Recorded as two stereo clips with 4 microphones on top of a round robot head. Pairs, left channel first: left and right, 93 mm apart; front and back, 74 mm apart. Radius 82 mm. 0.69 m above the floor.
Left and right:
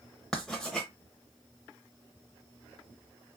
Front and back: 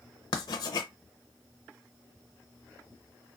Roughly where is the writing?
Ahead.